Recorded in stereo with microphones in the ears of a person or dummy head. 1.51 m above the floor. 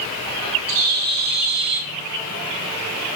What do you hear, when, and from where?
0.7 s a bird: 55° right (ahead or behind), 1.7 m